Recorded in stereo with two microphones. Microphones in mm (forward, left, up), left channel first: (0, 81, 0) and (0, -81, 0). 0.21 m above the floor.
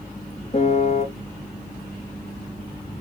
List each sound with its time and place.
0.5 s a piano: 45° left (ahead or behind), 0.5 m